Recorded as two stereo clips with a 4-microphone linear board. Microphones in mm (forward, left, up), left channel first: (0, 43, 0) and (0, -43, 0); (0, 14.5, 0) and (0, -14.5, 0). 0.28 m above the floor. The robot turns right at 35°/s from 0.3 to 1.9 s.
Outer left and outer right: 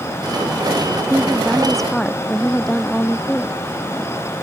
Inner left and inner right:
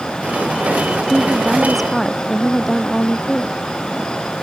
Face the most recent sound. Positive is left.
turn(degrees=5)  # may be behind; listen again after turning